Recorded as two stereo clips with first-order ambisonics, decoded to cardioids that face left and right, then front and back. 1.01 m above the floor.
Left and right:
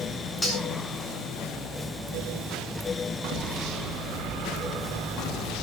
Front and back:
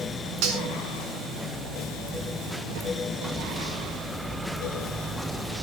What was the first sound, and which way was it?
Cutlery clinking, 170° left.